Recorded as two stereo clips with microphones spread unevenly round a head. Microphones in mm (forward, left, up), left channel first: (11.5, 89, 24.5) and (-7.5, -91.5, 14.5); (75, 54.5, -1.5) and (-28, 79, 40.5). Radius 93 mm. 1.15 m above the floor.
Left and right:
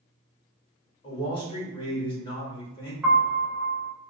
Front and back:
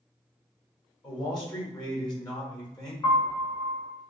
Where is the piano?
15° right, 0.9 m.